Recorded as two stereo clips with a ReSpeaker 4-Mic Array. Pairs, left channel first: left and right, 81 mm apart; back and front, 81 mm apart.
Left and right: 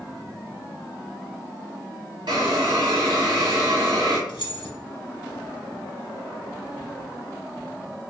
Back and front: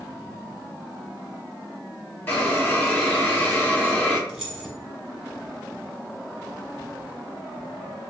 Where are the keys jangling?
85° left, 1.3 m.